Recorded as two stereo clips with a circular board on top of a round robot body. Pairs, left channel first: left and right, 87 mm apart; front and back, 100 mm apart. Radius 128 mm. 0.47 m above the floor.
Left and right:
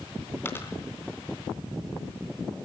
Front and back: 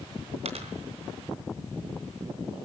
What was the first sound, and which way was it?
A dropped coin, 155° left.